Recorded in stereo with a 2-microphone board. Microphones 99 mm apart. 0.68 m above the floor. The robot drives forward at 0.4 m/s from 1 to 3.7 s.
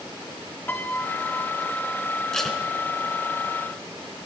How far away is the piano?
About 1.7 m.